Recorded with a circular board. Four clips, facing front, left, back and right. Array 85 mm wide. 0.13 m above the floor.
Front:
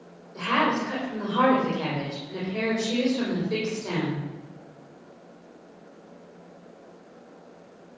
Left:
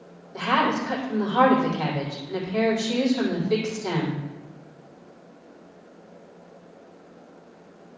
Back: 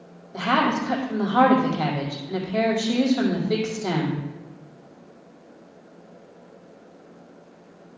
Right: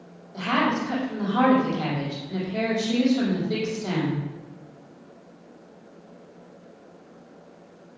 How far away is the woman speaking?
About 5 m.